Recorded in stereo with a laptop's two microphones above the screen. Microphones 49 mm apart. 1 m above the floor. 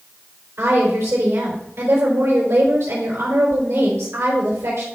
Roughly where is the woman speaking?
Right.